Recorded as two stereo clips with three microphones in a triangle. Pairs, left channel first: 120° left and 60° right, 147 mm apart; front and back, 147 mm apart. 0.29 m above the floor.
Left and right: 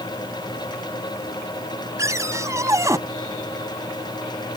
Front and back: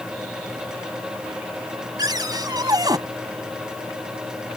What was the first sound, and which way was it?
A cupboard door, 125° right.